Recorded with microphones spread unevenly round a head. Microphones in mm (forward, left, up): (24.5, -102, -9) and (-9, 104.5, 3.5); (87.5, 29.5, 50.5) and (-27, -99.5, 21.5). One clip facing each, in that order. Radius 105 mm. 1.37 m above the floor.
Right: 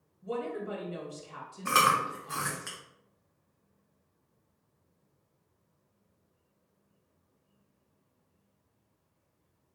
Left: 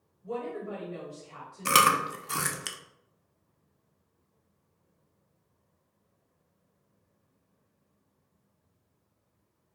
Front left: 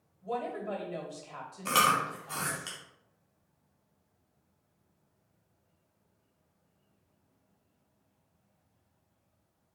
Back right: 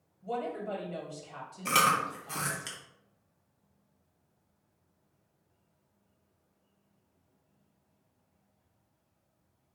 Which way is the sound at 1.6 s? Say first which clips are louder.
Left 2 dB, even; 145° left.